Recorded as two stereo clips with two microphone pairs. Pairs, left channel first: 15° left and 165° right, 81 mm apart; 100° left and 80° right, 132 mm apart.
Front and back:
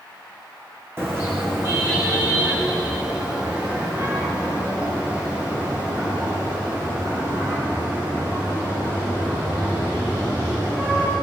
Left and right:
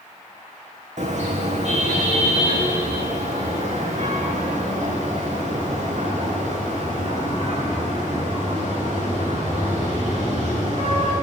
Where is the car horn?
105° right, 5.5 m; by 11.1 s 110° right, 20 m.